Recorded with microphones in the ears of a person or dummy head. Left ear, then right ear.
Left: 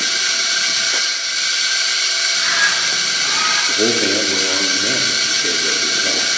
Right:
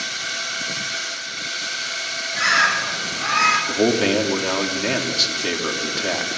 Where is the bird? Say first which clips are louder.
Right 2 dB; 85° right, 8 m.